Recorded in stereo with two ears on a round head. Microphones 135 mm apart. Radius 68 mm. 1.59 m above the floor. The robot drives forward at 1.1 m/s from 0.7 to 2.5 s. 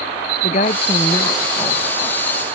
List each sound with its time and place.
0.4 s a woman speaking: 45° left (ahead or behind); by 2.3 s 15° left (ahead or behind)